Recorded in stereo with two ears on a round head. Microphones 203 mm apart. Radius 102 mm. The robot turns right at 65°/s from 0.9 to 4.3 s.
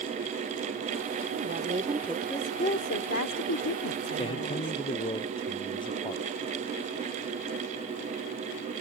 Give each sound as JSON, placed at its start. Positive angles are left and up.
{"t": 1.3, "sound": "a woman speaking", "azimuth_deg": -55}
{"t": 4.2, "sound": "a man speaking", "side_deg": 30}